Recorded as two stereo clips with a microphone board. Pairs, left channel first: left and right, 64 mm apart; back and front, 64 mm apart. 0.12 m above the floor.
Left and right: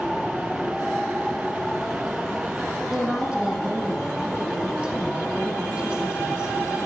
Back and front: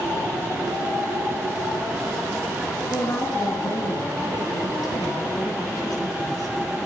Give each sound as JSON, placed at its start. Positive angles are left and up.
{"t": 2.9, "sound": "a woman speaking", "azimuth_deg": -165, "distance_m": 6.0}